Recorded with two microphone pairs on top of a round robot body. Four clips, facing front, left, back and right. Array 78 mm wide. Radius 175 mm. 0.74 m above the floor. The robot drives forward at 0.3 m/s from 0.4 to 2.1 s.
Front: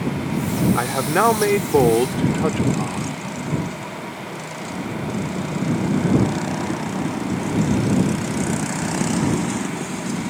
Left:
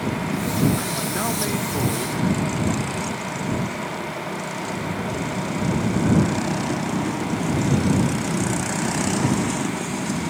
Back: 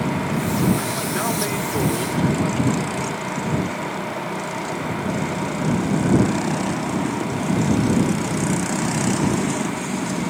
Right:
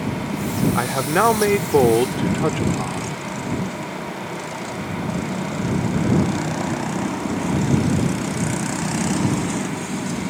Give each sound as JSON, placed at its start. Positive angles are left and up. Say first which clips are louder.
{"t": 0.8, "sound": "a man speaking", "louder": "right 7 dB, front 5 dB", "azimuth_deg": -35}